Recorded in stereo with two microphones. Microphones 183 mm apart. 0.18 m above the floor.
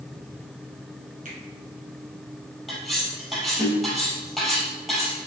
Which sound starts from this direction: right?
A finger snap, at 1.2 s.